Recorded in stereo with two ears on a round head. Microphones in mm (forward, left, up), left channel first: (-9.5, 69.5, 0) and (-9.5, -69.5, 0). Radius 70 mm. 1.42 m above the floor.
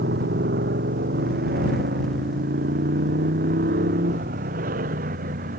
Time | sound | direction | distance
0.0 | a motorcycle | 75° right (ahead or behind) | ?